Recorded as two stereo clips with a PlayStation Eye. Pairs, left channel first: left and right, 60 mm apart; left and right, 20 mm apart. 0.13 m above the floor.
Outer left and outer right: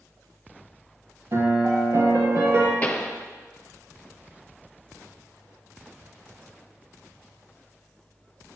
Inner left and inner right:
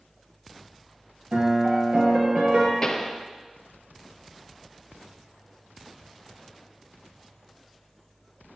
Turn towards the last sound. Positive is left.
turn(degrees=25)  # may be behind; listen again after turning